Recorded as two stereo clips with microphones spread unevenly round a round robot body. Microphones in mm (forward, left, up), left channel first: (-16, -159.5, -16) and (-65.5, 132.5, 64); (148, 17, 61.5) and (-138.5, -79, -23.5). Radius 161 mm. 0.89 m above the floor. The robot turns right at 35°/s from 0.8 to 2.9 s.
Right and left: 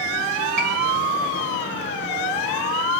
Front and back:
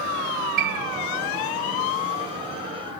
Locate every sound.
0.6 s a piano: 140° left, 2.5 m